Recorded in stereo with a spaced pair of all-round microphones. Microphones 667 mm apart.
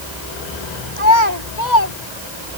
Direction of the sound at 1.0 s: 80° left.